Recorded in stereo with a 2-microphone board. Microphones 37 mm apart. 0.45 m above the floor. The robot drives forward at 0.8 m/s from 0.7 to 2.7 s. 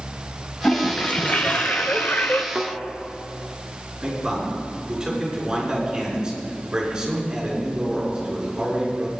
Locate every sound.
0.6 s a toilet flushing: 30° left (ahead or behind), 1.5 m; by 2.5 s 55° left (ahead or behind), 0.9 m
2.5 s a thud: 20° right (ahead or behind), 1.6 m
4.0 s a man speaking: 20° right (ahead or behind), 6 m